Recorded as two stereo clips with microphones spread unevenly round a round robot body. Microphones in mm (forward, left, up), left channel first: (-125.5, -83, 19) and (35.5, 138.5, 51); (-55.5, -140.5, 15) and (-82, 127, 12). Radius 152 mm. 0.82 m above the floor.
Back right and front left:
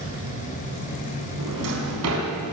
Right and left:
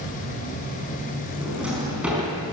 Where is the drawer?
10° left, 5 m.